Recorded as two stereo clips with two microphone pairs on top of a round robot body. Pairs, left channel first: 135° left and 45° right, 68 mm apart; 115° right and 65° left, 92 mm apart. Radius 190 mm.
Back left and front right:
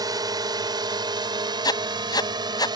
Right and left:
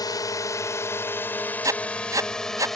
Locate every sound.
0.0 s a drone: 70° right; by 2.8 s 30° right
1.6 s writing: 120° left